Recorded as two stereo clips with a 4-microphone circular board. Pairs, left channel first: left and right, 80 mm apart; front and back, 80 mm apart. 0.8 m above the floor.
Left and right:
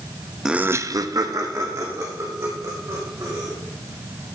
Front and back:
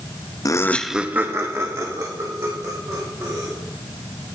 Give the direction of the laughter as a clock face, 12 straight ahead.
12 o'clock.